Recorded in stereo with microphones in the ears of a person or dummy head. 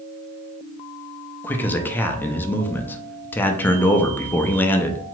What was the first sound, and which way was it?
A man speaking, 10° left (ahead or behind).